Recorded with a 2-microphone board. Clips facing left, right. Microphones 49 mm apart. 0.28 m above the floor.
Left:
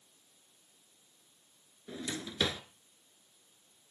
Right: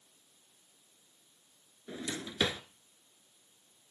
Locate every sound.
1.9 s a drawer: 10° right (ahead or behind), 1.5 m